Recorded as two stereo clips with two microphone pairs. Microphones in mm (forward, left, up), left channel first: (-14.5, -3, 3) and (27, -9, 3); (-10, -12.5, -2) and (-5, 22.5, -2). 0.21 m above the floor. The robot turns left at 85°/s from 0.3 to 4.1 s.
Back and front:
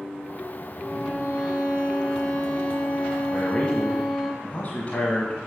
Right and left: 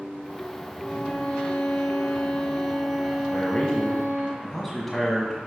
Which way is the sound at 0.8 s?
10° right.